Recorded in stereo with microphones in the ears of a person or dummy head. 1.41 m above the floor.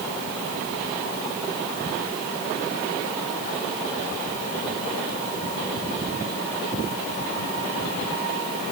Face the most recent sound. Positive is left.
No sound to turn to.